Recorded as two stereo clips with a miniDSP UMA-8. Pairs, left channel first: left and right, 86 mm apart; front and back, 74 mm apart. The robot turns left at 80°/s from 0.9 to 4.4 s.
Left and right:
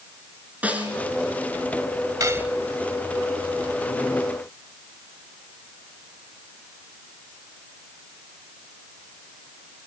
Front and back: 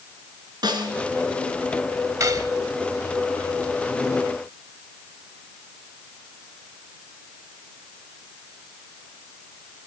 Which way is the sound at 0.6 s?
165° right.